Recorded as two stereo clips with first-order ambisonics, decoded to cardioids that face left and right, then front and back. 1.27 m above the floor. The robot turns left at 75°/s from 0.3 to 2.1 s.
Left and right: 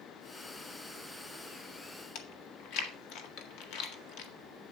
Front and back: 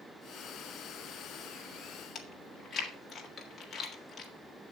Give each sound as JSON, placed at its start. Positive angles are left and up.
{"t": 2.1, "sound": "chewing", "azimuth_deg": 70, "distance_m": 1.7}